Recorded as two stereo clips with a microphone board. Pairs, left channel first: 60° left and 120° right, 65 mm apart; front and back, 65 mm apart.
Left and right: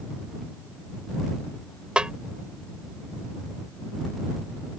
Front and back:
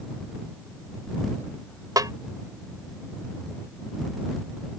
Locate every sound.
2.0 s a snare drum: 165° left